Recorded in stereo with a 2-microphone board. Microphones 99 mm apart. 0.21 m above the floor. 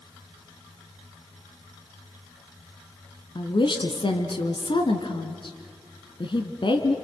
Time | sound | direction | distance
3.4 | a woman speaking | 55° left (ahead or behind) | 2 m